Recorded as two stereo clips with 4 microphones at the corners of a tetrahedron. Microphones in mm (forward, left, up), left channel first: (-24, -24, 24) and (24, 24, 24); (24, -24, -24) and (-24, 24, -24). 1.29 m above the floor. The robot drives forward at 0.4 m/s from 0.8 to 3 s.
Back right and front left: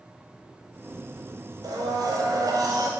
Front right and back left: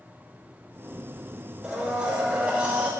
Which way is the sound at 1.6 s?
60° left.